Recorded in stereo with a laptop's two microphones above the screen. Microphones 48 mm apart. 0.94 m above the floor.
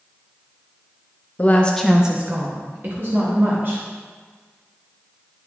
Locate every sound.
1.4 s a woman speaking: 35° left (ahead or behind), 0.9 m; by 3.8 s 55° right (ahead or behind), 2.5 m